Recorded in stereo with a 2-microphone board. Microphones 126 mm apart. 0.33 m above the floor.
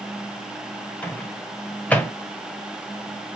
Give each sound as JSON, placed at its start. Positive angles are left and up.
{"t": 1.0, "sound": "a microwave", "side_deg": 10, "distance_m": 1.0}